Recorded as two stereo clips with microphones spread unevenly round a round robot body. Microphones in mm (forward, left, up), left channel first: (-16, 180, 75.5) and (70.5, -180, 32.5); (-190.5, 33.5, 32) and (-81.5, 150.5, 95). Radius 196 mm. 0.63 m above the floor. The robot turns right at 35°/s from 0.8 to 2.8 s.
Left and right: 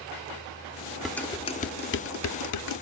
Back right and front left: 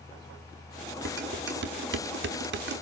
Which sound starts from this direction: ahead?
Dishes clattering, at 1.1 s.